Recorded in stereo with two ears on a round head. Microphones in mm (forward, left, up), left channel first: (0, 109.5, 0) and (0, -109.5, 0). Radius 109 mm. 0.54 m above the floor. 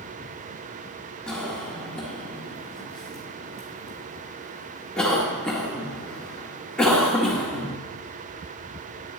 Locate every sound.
1.3 s a cough: 5° left (ahead or behind), 1.5 m